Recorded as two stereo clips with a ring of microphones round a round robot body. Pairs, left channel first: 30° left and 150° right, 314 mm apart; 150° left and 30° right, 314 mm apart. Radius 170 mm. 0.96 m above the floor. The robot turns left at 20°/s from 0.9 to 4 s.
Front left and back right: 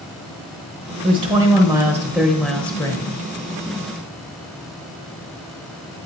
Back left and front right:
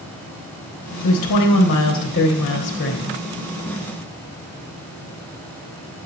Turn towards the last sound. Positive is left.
turn(degrees=85)